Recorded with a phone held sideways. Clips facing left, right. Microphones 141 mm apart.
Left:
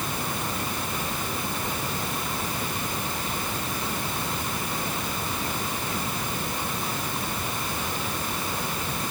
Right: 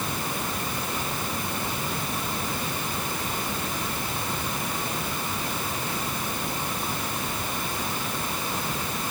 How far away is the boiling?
No boiling in this recording.